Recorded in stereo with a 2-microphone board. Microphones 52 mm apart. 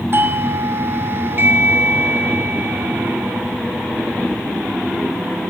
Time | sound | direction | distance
0.1 | a doorbell | 40° right (ahead or behind) | 1.8 m